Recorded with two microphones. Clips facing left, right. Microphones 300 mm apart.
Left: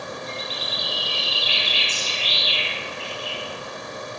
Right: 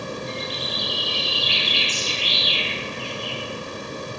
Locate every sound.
0.3 s a bird: 5° left (ahead or behind), 3.5 m